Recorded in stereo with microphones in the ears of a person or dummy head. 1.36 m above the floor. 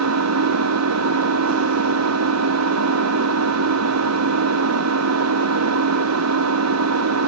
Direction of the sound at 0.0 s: 85° right.